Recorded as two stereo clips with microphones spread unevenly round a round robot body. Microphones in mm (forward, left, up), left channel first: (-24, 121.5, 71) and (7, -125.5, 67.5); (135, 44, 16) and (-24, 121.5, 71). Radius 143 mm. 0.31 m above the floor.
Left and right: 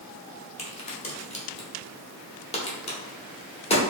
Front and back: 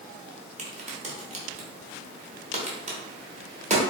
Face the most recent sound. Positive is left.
turn(degrees=115)